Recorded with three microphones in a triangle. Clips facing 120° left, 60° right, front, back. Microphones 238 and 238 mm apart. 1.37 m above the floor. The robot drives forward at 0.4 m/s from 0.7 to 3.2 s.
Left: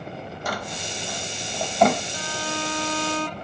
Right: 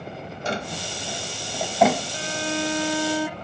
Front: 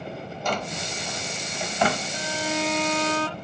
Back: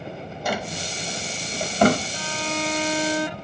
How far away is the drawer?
About 0.6 m.